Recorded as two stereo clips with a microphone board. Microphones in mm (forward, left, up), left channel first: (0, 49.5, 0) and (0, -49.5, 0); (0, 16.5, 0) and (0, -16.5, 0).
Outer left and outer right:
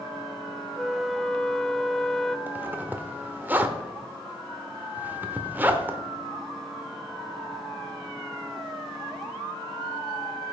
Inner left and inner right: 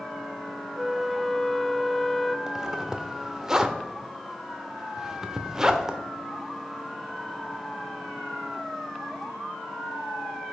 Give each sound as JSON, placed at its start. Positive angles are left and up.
{"t": 0.8, "sound": "a flute", "side_deg": 0, "distance_m": 0.5}
{"t": 2.5, "sound": "a zipper", "side_deg": -20, "distance_m": 1.0}